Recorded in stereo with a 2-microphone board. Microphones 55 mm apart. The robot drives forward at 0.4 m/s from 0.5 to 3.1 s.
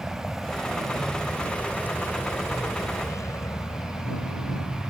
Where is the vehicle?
5° right (ahead or behind); by 4.9 s 75° left (ahead or behind).